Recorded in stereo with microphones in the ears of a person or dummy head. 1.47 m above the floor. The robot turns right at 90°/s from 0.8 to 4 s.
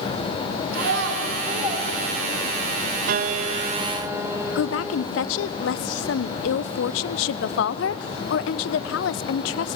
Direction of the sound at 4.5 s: 75° left (ahead or behind).